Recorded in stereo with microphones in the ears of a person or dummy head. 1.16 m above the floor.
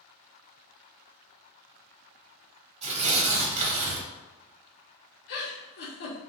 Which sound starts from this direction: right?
Tearing paper, at 2.8 s.